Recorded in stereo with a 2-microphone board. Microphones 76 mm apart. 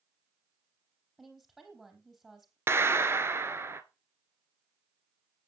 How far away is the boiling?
I don't hear boiling.